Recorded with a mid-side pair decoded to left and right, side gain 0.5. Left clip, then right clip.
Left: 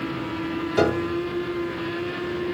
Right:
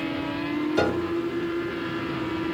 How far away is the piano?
About 0.6 m.